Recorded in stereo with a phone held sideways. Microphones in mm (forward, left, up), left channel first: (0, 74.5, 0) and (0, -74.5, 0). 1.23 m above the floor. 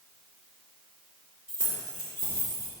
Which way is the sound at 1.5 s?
65° left (ahead or behind).